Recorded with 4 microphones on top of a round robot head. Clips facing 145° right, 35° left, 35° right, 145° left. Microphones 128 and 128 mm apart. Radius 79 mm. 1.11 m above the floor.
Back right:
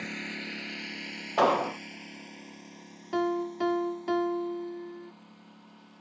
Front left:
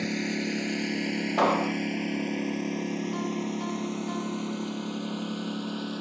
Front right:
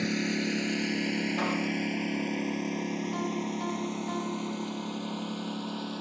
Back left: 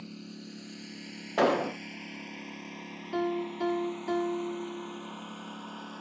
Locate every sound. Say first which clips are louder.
0.0 s a lawn mower: front left 10 dB, front right 15 dB; 20° right; by 6.0 s 30° left
1.4 s an explosion: back right 1 dB, back left 4 dB; 125° left
3.1 s a piano: back right 2 dB, back left 1 dB; straight behind